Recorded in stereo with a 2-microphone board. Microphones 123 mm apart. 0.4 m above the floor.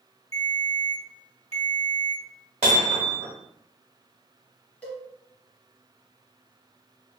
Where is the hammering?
60° right (ahead or behind), 1.3 m.